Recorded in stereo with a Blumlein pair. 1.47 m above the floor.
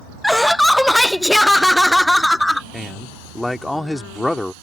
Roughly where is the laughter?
Ahead.